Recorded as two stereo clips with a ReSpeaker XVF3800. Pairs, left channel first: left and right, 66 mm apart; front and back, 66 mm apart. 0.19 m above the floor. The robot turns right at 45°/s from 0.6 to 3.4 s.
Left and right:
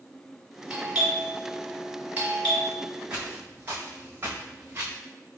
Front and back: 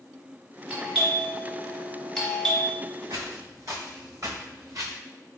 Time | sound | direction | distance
0.7 | a doorbell | 140° right | 1.4 m
3.1 | footsteps | 160° right | 1.9 m